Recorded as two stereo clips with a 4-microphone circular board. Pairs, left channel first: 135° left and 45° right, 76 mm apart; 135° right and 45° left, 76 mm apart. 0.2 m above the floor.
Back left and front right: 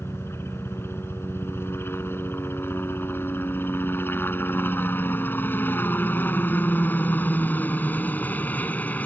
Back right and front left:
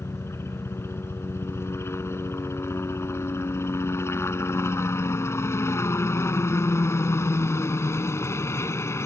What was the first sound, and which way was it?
A helicopter, straight behind.